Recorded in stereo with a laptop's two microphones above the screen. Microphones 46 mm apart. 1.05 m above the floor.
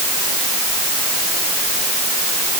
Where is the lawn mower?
I don't hear a lawn mower.